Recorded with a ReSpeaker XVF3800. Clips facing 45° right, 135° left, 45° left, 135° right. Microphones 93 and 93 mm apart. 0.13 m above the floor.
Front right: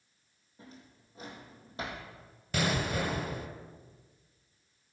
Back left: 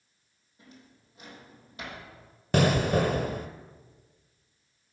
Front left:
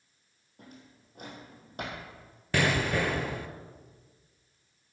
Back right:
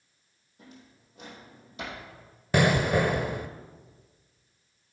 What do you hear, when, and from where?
0.6 s a drawer: 10° left, 3.5 m
2.5 s an explosion: 155° left, 0.8 m